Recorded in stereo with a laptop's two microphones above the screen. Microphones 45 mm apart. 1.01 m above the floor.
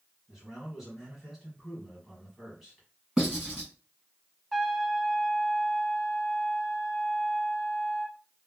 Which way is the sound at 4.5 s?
Centre (ahead or behind).